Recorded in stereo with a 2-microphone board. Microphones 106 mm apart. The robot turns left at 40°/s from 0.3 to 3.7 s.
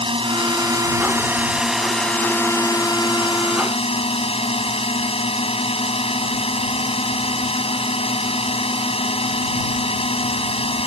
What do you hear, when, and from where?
0.0 s a drone: 120° right; by 10.9 s 105° left